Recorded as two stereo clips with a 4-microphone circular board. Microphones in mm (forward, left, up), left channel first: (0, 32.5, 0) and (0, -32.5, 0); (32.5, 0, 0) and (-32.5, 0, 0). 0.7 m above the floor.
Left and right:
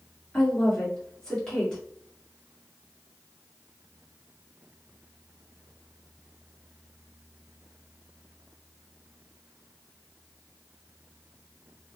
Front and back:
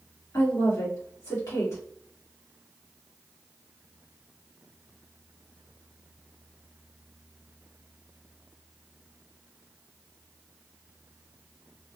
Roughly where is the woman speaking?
Ahead.